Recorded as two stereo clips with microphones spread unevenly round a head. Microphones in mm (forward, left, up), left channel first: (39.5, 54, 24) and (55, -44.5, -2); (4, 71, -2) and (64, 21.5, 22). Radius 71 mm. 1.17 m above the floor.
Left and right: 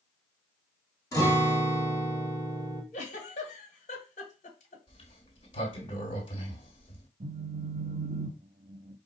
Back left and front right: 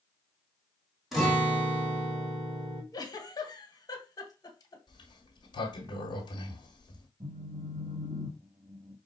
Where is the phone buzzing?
80° right, 0.5 m.